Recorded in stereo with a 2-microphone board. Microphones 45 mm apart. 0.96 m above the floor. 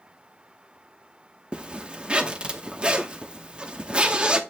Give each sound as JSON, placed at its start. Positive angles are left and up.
{"t": 1.5, "sound": "a zipper", "side_deg": -25, "distance_m": 0.7}